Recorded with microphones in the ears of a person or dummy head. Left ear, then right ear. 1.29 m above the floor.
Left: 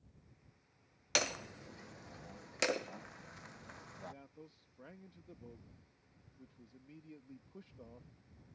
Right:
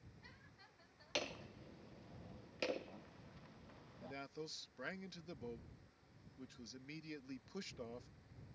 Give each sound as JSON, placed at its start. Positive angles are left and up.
{"t": 1.1, "sound": "hammering", "side_deg": 45}
{"t": 4.0, "sound": "a man speaking", "side_deg": -60}